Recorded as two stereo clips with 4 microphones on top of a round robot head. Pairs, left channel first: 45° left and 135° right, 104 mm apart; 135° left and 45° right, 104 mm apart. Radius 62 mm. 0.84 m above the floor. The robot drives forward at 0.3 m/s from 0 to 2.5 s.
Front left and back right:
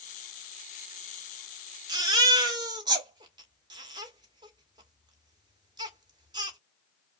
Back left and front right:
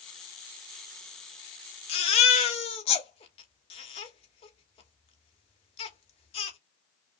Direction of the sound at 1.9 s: 170° left.